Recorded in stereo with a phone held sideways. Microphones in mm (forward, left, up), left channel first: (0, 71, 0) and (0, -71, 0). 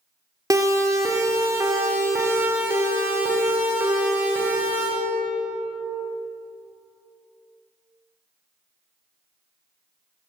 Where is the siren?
25° right (ahead or behind), 3 m; by 4.9 s 15° right (ahead or behind), 6.5 m.